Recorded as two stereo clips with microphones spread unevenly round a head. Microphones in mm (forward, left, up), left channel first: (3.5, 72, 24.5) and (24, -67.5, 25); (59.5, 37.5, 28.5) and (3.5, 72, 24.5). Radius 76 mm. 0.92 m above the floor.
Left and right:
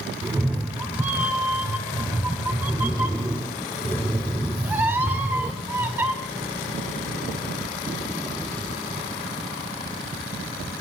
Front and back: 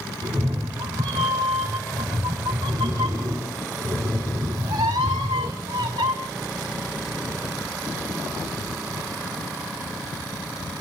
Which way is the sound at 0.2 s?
160° right.